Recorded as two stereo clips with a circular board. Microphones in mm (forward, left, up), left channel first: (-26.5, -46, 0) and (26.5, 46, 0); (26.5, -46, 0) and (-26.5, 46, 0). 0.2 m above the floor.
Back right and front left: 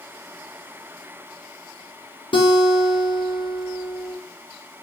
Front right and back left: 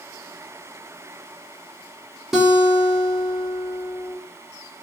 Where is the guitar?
155° right, 1.1 m.